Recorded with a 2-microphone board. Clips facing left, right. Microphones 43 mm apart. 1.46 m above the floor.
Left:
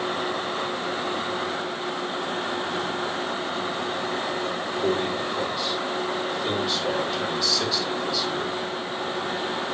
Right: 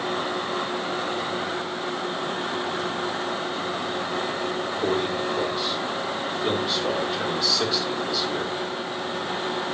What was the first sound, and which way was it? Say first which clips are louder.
A man speaking: even; 10° right (ahead or behind).